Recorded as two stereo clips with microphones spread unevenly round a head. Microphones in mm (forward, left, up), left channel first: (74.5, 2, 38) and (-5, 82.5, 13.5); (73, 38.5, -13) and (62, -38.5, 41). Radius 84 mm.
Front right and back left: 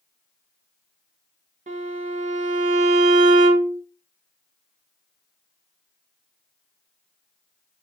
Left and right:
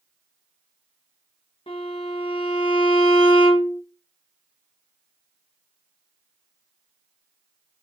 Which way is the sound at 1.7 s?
155° left.